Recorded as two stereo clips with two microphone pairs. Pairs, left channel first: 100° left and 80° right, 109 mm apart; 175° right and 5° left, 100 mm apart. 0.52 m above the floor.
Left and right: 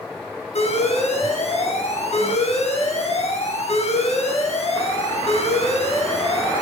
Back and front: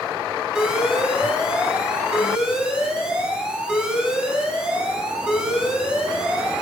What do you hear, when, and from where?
0.6 s an alarm: 85° left, 6.5 m